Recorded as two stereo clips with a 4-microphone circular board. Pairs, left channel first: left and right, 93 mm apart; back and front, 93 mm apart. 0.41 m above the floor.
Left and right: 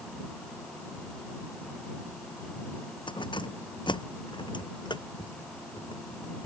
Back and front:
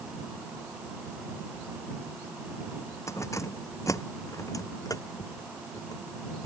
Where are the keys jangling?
120° left; by 6.5 s 130° left.